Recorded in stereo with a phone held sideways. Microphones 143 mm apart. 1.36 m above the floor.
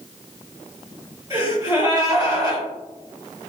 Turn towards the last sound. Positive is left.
turn(degrees=-25)  # may be behind; listen again after turning